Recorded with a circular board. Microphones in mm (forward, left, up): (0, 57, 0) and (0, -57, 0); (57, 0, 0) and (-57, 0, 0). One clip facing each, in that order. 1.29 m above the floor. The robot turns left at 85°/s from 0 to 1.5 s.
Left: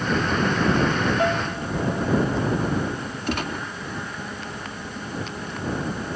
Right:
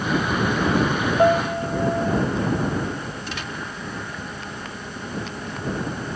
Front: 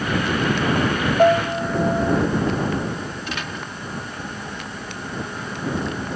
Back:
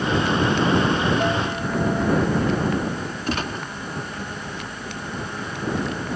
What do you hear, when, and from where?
1.2 s a piano: 30° right; by 2.2 s 55° right
3.3 s a gunshot: 130° left